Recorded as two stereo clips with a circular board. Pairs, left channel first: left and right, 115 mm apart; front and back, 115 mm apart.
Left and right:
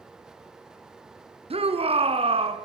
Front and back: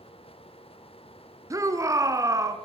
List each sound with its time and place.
1.5 s a shout: 120° right, 3.5 m